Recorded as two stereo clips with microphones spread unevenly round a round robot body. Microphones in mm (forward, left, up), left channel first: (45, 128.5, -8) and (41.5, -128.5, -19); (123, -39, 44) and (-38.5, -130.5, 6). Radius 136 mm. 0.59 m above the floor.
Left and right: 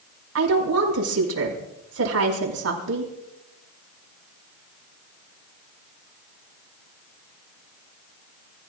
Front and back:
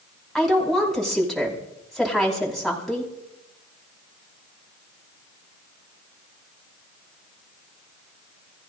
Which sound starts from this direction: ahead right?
A woman speaking, at 0.3 s.